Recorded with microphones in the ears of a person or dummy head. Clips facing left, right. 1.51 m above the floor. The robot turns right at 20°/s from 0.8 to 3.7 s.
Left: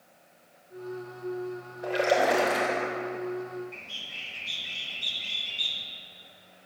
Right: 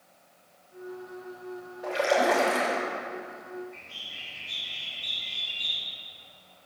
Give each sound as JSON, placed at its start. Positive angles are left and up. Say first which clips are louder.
{"t": 1.8, "sound": "a splash", "louder": "even", "side_deg": 25, "distance_m": 3.0}
{"t": 3.7, "sound": "a bird", "louder": "left 1 dB", "side_deg": 80, "distance_m": 1.5}